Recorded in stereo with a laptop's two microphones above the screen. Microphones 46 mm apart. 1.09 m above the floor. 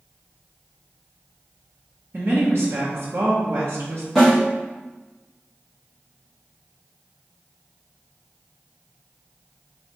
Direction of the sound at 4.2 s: 5° left (ahead or behind).